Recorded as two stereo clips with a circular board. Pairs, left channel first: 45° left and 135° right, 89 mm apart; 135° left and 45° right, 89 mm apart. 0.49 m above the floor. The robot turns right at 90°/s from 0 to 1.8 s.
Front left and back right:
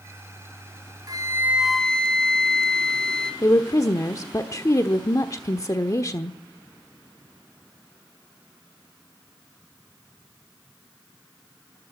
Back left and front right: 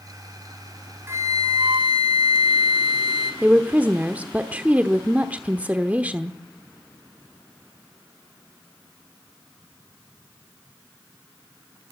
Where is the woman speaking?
20° left, 1.0 m.